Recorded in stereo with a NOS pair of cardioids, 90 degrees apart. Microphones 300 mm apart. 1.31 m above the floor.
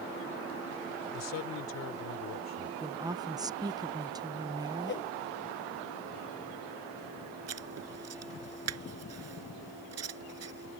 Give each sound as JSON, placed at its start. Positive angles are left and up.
{"t": 1.1, "sound": "a man speaking", "azimuth_deg": 65}
{"t": 2.8, "sound": "a woman speaking", "azimuth_deg": -15}
{"t": 4.9, "sound": "a whoosh", "azimuth_deg": 40}
{"t": 7.5, "sound": "writing", "azimuth_deg": -60}